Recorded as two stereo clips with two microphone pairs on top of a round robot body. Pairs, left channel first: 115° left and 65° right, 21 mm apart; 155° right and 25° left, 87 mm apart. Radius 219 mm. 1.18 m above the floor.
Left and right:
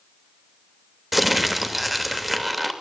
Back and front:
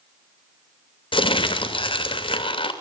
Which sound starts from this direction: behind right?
Crumpling, at 1.1 s.